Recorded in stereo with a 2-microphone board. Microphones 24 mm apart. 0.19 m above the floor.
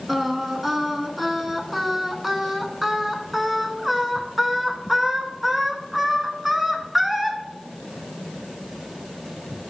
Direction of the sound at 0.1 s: 5° right (ahead or behind).